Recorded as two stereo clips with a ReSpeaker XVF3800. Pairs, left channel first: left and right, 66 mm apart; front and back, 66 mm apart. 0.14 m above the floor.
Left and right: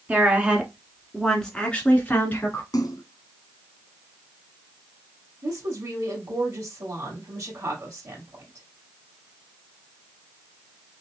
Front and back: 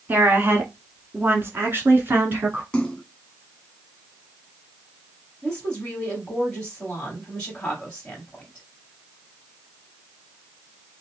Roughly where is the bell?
I don't hear a bell.